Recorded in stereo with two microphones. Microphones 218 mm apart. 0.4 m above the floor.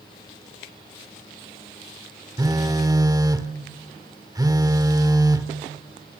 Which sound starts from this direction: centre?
A phone buzzing, at 2.4 s.